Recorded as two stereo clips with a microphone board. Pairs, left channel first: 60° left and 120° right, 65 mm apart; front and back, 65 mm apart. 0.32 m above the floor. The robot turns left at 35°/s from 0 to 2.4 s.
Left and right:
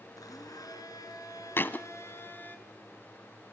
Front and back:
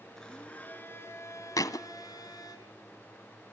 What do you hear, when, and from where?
0.2 s a blender: 80° left, 4 m; by 2.6 s straight ahead, 4 m
1.6 s a thud: 10° left, 1.2 m; by 1.9 s straight ahead, 1.2 m